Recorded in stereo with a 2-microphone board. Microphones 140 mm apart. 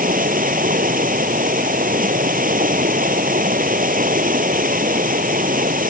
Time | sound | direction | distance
0.0 | running water | 85° right | ?